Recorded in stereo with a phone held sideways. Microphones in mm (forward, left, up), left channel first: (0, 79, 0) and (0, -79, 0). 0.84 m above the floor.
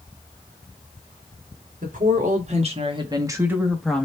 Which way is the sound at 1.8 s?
60° right (ahead or behind).